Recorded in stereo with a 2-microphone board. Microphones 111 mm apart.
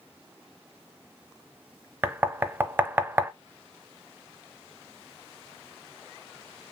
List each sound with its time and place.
2.0 s knocking: 20° right (ahead or behind), 0.5 m